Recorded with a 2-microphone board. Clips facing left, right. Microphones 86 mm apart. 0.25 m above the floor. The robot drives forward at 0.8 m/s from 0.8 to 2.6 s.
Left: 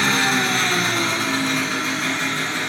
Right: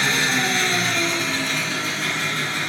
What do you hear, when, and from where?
0.0 s an engine running: 55° left (ahead or behind), 1.9 m; by 2.7 s 35° left (ahead or behind), 3 m